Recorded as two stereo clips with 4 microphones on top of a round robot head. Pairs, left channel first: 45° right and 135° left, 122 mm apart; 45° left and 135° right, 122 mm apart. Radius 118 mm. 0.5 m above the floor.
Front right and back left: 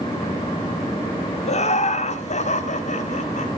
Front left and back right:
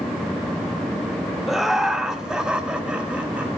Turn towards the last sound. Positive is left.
turn(degrees=-55)